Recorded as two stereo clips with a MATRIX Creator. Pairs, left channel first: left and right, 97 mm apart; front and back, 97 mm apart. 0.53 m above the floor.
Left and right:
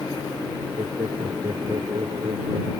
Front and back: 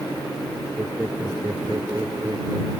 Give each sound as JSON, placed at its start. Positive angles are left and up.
{"t": 0.8, "sound": "laughter", "azimuth_deg": -120}